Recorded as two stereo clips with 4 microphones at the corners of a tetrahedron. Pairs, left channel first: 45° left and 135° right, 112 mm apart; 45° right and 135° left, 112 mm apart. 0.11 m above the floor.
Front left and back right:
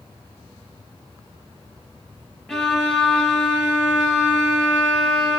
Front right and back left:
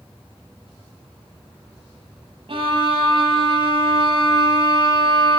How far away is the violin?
About 1.0 m.